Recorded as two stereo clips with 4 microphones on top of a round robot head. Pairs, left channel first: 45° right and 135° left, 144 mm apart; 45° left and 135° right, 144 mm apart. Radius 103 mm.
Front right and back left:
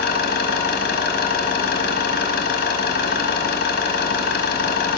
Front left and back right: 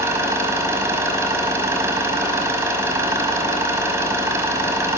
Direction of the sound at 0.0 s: 65° right.